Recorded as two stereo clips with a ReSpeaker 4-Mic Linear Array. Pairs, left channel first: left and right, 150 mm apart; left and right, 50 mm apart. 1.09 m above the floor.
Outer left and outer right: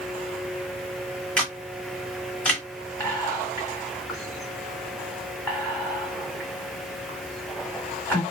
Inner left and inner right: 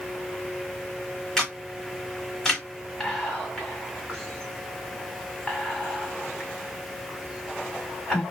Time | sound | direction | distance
1.4 | a camera shutter | 10° left (ahead or behind) | 1.4 m
3.0 | whispering | 15° left (ahead or behind) | 1.4 m